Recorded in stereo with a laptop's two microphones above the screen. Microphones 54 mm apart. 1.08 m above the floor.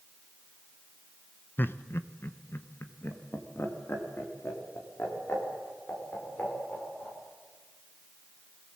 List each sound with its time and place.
1.6 s laughter: 45° left (ahead or behind), 0.7 m